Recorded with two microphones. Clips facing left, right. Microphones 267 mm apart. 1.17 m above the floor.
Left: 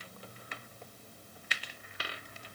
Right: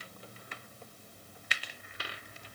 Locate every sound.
Only background noise.